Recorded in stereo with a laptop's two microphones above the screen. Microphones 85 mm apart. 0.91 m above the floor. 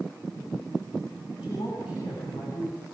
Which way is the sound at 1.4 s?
85° left.